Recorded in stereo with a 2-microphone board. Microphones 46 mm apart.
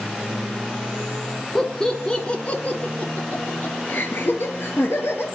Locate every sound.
1.6 s laughter: 10° left (ahead or behind), 1.3 m; by 5.2 s 60° left (ahead or behind), 2.5 m